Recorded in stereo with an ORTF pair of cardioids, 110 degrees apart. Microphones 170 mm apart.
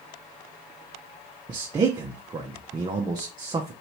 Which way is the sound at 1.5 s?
25° right.